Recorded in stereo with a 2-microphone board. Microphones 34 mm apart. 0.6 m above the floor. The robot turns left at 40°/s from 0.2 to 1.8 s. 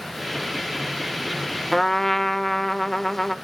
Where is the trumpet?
5° left (ahead or behind), 0.5 m; by 3.4 s 10° left (ahead or behind), 0.5 m.